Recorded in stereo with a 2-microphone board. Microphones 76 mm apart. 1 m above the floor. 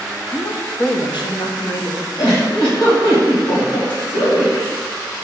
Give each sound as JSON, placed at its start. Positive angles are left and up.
{"t": 0.3, "sound": "a woman speaking", "side_deg": 55, "distance_m": 0.8}
{"t": 2.2, "sound": "a giggle", "side_deg": 70, "distance_m": 2.5}